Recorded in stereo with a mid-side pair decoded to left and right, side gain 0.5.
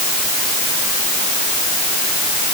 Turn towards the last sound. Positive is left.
No sound to turn to.